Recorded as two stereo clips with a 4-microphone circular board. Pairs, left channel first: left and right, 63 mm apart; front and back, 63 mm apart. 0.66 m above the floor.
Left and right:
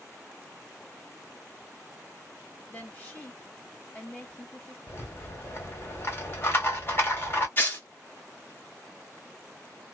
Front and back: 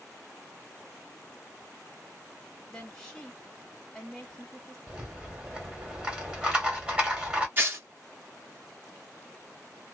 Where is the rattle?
115° left, 1.3 m.